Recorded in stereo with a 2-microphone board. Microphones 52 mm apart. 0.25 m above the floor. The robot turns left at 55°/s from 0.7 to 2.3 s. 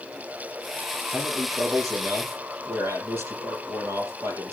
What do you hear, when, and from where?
1.1 s a man speaking: 50° right, 6.5 m; by 4.5 s 115° right, 6.5 m